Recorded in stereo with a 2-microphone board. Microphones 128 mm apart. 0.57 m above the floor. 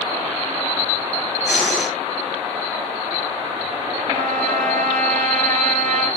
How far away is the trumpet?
About 4.5 m.